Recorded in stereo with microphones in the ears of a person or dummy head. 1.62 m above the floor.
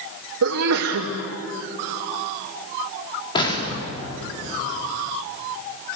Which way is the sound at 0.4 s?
80° right.